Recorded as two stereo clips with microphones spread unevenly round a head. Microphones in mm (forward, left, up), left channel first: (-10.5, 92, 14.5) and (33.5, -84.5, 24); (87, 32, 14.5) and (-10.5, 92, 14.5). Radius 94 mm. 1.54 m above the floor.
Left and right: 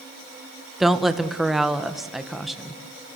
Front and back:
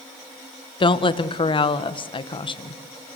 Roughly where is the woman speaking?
Ahead.